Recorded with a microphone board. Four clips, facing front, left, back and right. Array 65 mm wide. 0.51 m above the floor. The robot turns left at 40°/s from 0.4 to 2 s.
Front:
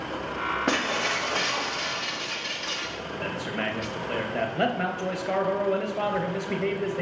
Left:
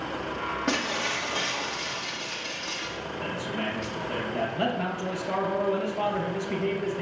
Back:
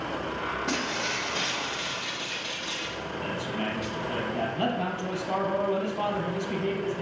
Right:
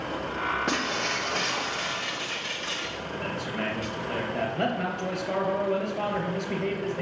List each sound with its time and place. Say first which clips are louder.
0.7 s breaking glass: even, front 4 dB; straight ahead, 1.2 m; by 3.9 s 50° right, 1.2 m
3.2 s a man speaking: even, front 2 dB; 15° right, 3 m